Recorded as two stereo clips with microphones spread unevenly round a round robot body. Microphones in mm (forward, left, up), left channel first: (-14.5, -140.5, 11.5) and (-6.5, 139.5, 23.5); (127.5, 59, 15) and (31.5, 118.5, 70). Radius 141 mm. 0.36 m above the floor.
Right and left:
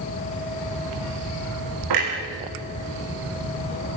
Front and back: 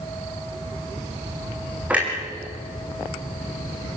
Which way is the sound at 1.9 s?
70° left.